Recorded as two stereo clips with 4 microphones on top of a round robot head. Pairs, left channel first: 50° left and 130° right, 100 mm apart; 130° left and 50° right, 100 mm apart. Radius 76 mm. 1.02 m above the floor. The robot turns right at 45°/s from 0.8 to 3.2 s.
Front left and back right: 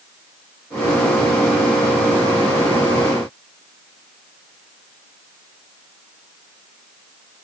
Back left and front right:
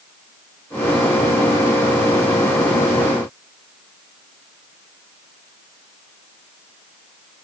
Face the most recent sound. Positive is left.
No sound to turn to.